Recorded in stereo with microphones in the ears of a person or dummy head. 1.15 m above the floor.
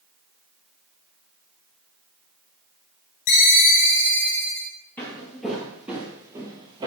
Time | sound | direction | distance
3.3 | a ringtone | 65° left (ahead or behind) | 1.7 m
5.0 | footsteps | 10° left (ahead or behind) | 1.5 m